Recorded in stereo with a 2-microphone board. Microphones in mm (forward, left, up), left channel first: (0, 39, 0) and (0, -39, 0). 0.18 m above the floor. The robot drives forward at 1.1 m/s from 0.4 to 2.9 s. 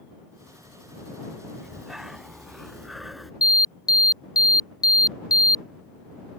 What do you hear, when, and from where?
1.6 s breathing: 5° right (ahead or behind); by 3.3 s centre (ahead or behind)
3.4 s an alarm: 55° left (ahead or behind)